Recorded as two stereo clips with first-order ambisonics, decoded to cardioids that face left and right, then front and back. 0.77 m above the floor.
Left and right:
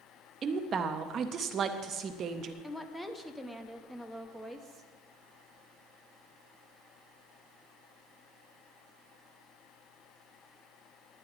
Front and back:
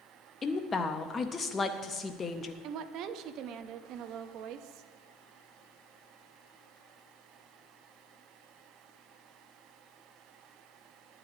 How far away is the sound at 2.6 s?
About 0.7 m.